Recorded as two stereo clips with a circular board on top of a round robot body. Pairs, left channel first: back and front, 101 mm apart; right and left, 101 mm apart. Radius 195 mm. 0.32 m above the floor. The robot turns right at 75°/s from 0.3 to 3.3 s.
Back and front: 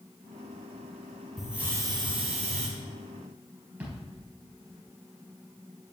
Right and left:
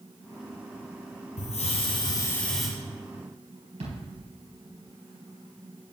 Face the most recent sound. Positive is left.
turn(degrees=75)